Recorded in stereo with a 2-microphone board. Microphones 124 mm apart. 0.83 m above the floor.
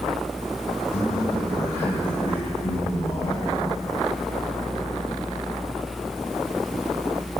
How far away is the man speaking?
About 6 m.